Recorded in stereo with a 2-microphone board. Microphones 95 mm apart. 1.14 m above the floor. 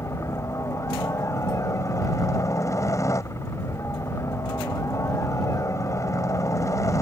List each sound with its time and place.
0.0 s a helicopter: 30° left (ahead or behind)